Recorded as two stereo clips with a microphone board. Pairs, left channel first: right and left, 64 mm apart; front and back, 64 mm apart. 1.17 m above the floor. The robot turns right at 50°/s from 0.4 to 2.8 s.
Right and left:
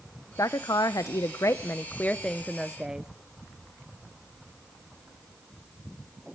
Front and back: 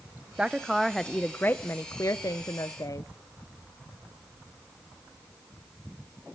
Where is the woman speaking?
110° right, 0.5 m; by 3.1 s 10° left, 0.5 m.